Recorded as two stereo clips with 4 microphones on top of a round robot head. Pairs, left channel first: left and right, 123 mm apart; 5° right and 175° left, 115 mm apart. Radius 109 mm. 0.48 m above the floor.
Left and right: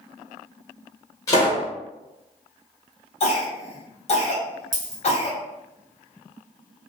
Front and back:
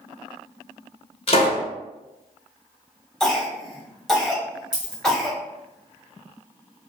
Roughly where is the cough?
Left.